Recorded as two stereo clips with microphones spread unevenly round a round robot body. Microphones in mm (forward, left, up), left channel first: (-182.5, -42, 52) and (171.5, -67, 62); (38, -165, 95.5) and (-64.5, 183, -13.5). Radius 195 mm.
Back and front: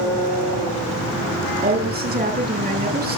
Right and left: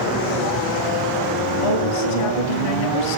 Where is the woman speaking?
65° right, 8 m.